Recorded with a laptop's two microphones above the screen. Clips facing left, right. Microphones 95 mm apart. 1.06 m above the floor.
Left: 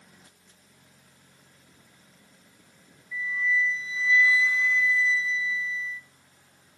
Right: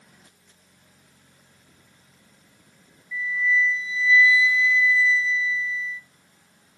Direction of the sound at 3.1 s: 45° left (ahead or behind).